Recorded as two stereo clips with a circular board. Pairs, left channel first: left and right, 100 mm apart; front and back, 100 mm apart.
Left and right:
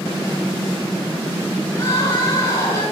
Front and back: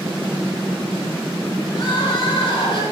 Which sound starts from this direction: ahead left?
Crying, at 1.7 s.